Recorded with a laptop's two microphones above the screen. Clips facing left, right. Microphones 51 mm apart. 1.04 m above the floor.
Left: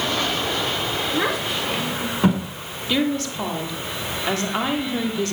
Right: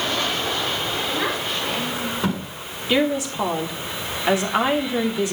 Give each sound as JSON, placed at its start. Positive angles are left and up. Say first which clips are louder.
{"t": 1.1, "sound": "a child speaking", "louder": "left 1 dB", "side_deg": 15, "distance_m": 8.0}
{"t": 2.9, "sound": "a woman speaking", "louder": "right 2 dB", "side_deg": -15, "distance_m": 2.5}